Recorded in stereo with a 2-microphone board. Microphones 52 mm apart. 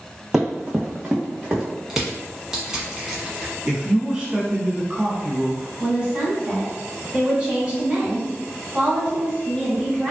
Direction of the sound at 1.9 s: 10° right (ahead or behind).